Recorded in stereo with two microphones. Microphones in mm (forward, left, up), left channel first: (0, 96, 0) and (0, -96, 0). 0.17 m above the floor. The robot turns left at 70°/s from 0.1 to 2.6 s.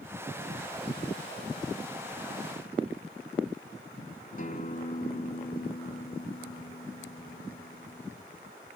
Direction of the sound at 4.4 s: 45° left (ahead or behind).